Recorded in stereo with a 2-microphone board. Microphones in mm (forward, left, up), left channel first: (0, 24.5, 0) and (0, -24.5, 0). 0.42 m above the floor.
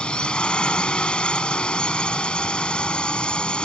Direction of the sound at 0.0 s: 20° left (ahead or behind).